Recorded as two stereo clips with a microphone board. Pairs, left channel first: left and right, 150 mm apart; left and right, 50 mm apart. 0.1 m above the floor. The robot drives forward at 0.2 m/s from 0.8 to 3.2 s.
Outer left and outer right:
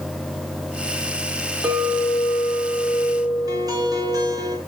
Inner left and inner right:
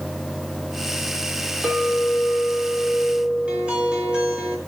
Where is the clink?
10° right (ahead or behind), 8 m.